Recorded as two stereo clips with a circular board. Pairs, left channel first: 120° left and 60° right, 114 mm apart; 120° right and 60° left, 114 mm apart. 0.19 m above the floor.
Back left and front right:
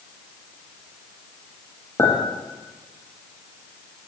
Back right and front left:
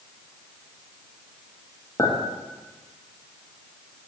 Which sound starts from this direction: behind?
A clink, at 2.0 s.